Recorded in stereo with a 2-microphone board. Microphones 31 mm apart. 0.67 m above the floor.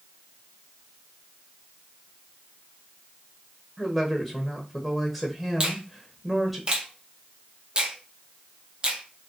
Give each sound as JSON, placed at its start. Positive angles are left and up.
{"t": 3.8, "sound": "a woman speaking", "side_deg": -5, "distance_m": 1.1}
{"t": 5.6, "sound": "a finger snap", "side_deg": -30, "distance_m": 0.9}